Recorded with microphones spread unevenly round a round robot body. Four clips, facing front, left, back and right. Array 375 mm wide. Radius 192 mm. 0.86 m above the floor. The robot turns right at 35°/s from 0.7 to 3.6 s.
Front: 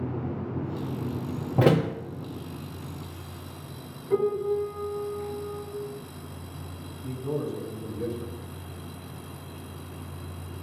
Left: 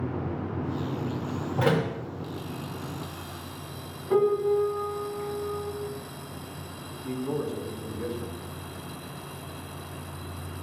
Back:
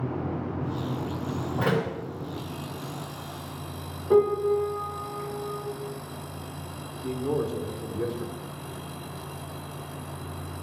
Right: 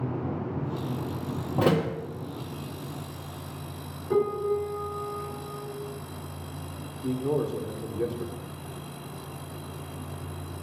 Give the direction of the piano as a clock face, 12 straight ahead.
6 o'clock.